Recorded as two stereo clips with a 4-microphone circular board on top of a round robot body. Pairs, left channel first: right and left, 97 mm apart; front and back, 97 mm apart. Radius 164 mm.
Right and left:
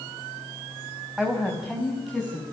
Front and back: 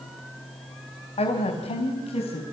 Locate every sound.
1.2 s a woman speaking: 5° left, 4 m; by 2.4 s 5° right, 5 m